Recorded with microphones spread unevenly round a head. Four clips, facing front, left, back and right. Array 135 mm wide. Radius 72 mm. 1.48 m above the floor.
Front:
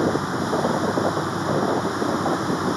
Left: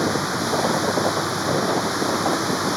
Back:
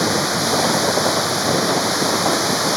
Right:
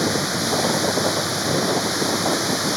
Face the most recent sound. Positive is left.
turn(degrees=-175)